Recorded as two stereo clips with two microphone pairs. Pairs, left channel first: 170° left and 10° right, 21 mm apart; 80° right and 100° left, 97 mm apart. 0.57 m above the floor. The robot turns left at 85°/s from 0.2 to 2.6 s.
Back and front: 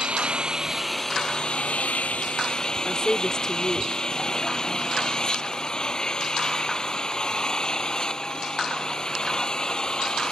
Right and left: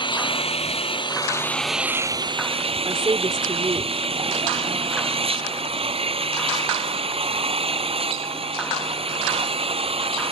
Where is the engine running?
45° right; by 10.3 s 110° left.